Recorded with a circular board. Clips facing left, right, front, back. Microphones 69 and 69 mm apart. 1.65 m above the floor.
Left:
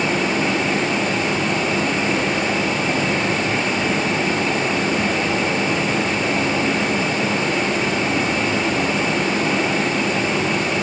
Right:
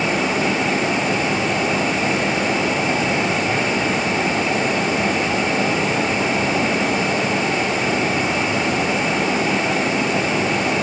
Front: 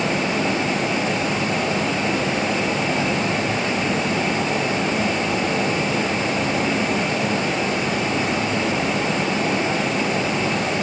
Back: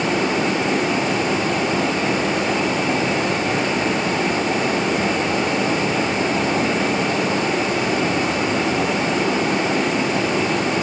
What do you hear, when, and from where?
0.0 s running water: straight behind, 6 m